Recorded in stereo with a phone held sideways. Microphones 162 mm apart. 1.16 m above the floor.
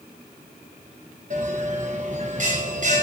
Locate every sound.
1.3 s a bell: 50° right (ahead or behind), 0.9 m